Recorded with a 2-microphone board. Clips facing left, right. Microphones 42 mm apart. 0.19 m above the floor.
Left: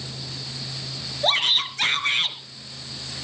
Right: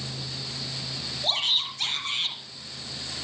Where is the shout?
65° left (ahead or behind), 3 m.